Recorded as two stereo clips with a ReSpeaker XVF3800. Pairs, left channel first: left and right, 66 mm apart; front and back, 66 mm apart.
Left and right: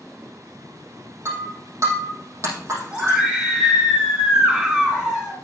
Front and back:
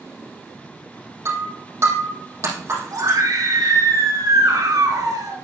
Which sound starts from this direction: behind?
A scream, at 2.9 s.